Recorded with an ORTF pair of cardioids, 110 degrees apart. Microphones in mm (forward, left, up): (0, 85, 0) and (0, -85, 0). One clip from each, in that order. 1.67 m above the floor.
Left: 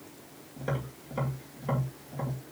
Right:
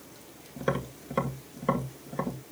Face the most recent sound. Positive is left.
turn(degrees=-45)